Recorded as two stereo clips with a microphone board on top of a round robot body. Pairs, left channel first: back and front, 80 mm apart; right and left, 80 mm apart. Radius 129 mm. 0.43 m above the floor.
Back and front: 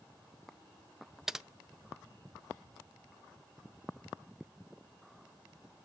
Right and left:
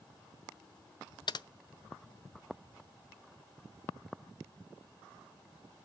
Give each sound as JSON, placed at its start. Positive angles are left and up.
{"t": 1.3, "sound": "typing on a keyboard", "azimuth_deg": -85, "distance_m": 0.5}